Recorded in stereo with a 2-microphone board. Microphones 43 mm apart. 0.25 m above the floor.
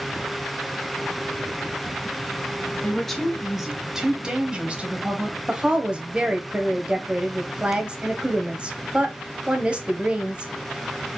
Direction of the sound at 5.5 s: 25° right (ahead or behind).